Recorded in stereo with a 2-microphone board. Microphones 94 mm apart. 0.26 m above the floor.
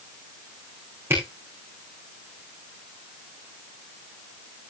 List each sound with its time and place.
1.1 s a camera shutter: 25° right (ahead or behind), 8.5 m